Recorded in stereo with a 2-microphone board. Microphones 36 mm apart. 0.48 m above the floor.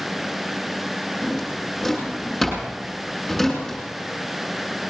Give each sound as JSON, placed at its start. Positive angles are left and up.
{"t": 1.2, "sound": "a drawer", "side_deg": 0, "distance_m": 8.5}